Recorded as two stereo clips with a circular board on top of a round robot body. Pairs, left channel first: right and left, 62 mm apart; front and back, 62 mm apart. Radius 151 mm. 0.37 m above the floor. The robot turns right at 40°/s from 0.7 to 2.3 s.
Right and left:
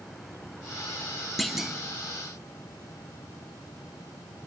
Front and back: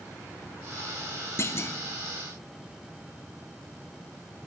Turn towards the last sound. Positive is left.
turn(degrees=35)